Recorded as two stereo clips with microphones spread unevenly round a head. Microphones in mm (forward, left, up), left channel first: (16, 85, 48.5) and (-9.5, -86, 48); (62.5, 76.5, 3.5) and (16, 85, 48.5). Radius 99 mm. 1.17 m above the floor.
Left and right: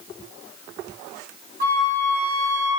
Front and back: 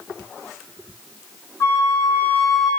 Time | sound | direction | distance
1.6 | a flute | 60° right | 2.5 m